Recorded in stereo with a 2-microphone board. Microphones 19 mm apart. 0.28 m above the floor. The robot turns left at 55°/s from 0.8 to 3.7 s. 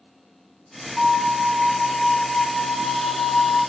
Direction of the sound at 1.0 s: 115° right.